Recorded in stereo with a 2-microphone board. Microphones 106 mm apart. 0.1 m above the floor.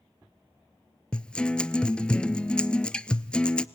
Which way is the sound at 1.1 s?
10° left (ahead or behind).